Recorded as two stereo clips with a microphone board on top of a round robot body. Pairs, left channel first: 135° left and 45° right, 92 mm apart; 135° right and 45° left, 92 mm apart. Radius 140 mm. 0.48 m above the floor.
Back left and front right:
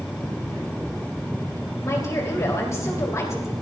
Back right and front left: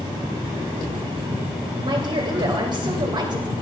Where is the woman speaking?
80° left, 3.5 m.